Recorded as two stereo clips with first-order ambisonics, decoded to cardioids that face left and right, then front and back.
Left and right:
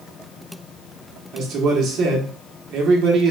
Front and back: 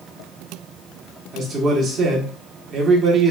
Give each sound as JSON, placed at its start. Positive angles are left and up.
{"t": 1.3, "sound": "a man speaking", "azimuth_deg": -125, "distance_m": 1.0}